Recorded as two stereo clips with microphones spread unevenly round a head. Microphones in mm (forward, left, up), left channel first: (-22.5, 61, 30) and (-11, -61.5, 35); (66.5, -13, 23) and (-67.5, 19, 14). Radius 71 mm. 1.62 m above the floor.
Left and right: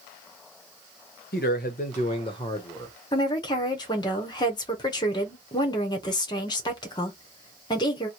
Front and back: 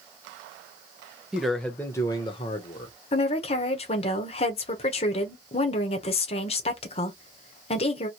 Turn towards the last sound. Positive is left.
turn(degrees=35)